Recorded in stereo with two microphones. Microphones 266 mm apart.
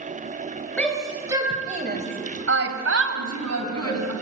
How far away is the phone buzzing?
I don't hear a phone buzzing.